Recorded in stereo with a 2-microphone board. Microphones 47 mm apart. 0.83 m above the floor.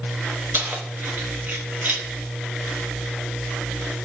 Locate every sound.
0.5 s keys jangling: 40° right (ahead or behind), 0.6 m